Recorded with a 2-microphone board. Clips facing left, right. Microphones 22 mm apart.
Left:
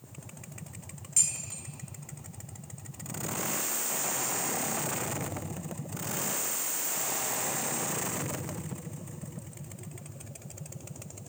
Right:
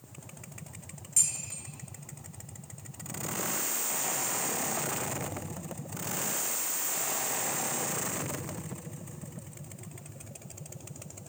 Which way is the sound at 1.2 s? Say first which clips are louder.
Even; 10° left (ahead or behind).